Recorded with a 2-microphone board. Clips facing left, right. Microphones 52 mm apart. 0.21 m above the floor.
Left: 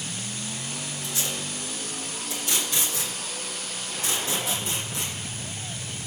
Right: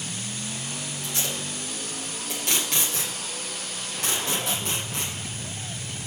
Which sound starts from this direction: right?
Tape being pulled, at 1.0 s.